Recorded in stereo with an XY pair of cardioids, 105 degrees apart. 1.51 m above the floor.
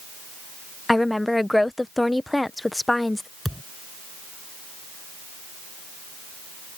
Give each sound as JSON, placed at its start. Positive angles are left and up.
{"t": 0.9, "sound": "a woman speaking", "azimuth_deg": 10}
{"t": 3.5, "sound": "a thud", "azimuth_deg": 5}